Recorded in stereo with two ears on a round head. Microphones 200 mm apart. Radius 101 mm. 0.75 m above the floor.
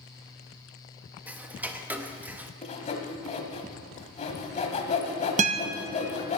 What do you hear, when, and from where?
1.3 s ticking: 5° right (ahead or behind), 0.7 m
2.6 s sawing: 30° left (ahead or behind), 1.4 m
5.4 s a guitar: 30° right (ahead or behind), 0.6 m